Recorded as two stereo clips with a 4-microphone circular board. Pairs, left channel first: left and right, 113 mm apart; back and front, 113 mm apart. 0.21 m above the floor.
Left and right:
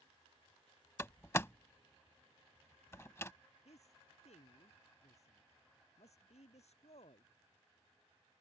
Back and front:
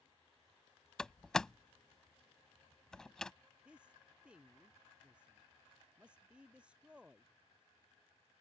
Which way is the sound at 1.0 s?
105° left.